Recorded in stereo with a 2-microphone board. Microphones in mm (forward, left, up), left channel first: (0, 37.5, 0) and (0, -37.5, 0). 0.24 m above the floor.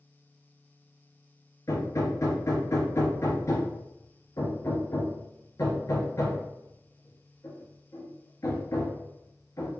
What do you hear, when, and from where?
1.7 s hammering: 45° left (ahead or behind), 1.3 m